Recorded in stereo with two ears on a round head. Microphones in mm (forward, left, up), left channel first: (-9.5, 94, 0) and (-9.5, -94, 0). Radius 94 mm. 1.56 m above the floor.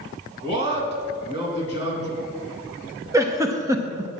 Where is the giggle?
15° right (ahead or behind), 0.8 m.